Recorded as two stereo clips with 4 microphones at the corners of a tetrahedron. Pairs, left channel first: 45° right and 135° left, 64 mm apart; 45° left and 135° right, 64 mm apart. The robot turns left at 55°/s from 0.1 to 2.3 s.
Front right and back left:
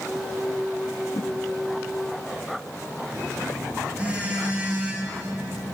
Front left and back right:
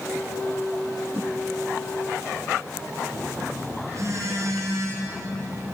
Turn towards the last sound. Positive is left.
turn(degrees=-155)